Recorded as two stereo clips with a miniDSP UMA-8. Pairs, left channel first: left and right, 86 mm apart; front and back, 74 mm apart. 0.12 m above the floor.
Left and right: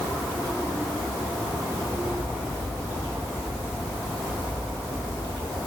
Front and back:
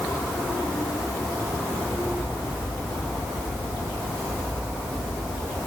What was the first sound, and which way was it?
Only background noise.